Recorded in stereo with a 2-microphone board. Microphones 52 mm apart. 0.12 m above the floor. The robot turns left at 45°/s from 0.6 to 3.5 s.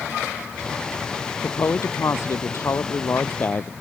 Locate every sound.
1.4 s a woman speaking: 135° left; by 3.7 s 40° left